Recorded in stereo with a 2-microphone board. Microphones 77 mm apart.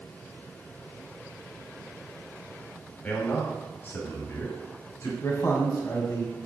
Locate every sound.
3.0 s a man speaking: 25° left (ahead or behind), 1.9 m; by 5.1 s 45° left (ahead or behind), 3.5 m
5.2 s a man speaking: 40° left (ahead or behind), 1.9 m